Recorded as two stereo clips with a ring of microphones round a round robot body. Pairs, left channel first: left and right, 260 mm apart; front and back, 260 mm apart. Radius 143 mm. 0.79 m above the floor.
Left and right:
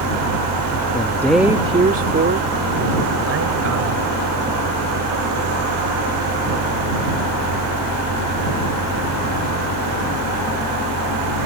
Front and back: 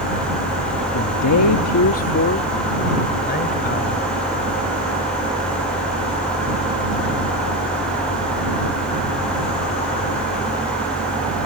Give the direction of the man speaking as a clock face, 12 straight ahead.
11 o'clock.